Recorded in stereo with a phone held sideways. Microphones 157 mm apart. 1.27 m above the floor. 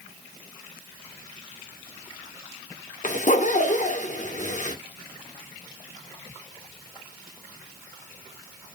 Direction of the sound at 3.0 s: 50° left (ahead or behind).